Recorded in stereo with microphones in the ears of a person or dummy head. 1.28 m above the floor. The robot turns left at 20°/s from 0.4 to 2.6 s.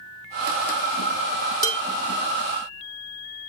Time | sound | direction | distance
1.6 | dishes clattering | 20° right (ahead or behind) | 0.9 m